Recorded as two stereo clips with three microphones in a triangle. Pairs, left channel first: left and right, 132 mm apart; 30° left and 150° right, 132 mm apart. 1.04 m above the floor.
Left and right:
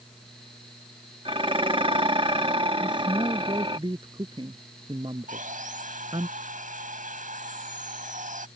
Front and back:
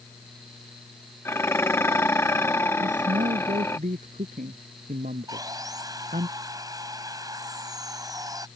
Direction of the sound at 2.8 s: 145° right.